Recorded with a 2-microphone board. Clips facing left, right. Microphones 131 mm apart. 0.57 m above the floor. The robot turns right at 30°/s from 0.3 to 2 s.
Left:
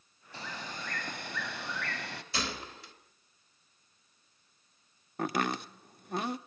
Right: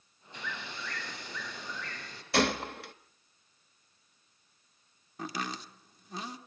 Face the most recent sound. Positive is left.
turn(degrees=65)  # may be behind; listen again after turning